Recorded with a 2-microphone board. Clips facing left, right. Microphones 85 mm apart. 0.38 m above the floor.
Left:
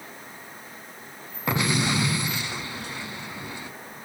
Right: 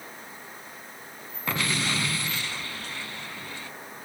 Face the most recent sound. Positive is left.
turn(degrees=15)  # may be behind; listen again after turning